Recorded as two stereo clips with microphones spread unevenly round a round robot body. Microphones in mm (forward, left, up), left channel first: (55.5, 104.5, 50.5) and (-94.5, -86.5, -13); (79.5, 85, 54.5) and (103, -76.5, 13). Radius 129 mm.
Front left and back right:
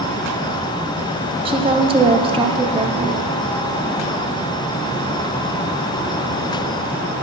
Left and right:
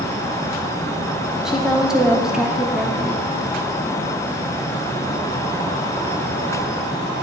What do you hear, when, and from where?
1.4 s a woman speaking: 145° right, 0.8 m